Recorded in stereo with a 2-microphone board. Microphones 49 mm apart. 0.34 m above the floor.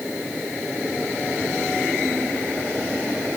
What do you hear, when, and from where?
Only background noise.